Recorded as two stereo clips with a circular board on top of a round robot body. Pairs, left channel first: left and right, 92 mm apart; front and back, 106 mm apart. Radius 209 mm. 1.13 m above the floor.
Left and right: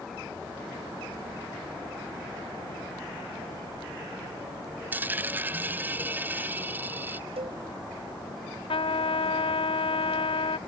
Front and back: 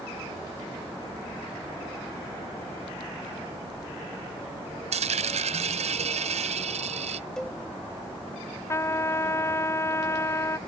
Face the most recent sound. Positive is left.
turn(degrees=65)